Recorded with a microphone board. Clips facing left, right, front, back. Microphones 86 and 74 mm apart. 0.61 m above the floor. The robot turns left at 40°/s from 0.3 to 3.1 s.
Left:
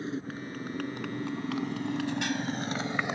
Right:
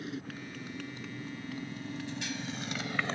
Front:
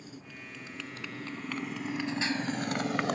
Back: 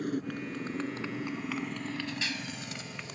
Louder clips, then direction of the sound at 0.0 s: Left 5 dB, back 13 dB; 150° left.